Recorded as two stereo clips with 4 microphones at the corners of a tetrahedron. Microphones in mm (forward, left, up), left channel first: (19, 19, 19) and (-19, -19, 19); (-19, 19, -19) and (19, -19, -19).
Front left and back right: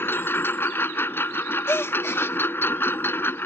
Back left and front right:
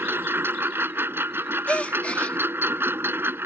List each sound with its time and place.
0.0 s a lawn mower: straight ahead
1.7 s a gasp: 70° left